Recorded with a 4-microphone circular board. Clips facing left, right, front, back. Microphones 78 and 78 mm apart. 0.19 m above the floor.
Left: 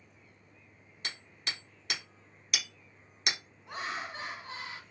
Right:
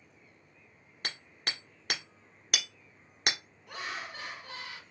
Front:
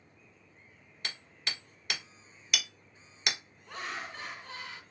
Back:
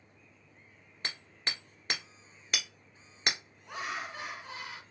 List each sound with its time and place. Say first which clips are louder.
1.0 s hammering: right 2 dB, back 2 dB; 130° right, 1.3 m
3.7 s laughter: left 2 dB, back 2 dB; 115° left, 1.3 m